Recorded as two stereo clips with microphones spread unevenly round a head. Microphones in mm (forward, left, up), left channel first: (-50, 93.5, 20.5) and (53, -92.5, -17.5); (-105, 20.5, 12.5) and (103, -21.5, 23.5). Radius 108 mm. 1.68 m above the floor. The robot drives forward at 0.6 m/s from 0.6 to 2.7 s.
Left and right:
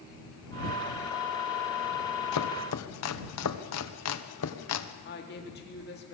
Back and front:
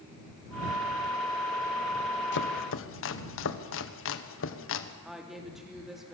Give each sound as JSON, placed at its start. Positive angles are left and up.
{"t": 2.3, "sound": "chopping", "azimuth_deg": 130, "distance_m": 1.3}
{"t": 5.0, "sound": "a woman speaking", "azimuth_deg": 75, "distance_m": 3.5}